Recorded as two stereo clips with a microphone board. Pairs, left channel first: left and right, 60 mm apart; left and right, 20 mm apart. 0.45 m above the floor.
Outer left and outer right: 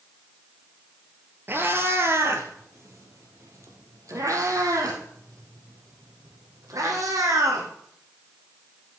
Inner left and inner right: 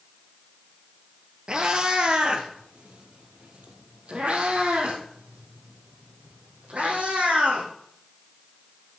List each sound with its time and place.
1.5 s a cat meowing: 40° right (ahead or behind), 1.8 m; by 7.7 s 80° right, 4.5 m